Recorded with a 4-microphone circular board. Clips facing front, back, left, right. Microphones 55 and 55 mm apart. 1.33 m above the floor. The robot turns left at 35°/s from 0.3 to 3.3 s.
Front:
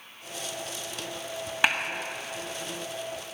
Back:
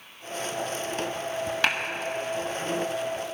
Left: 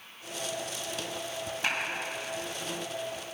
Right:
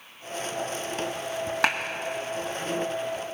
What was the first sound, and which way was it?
A clap, 75° right.